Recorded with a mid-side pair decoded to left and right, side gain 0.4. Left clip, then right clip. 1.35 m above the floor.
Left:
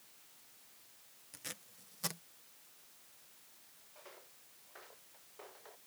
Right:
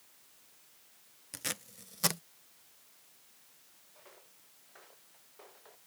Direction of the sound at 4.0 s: 15° left.